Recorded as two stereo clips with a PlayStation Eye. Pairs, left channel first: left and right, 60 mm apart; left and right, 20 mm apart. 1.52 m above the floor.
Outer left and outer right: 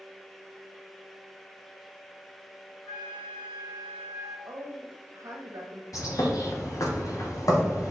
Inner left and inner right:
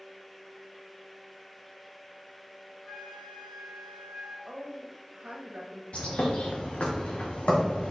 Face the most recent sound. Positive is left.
turn(degrees=75)  # may be behind; listen again after turning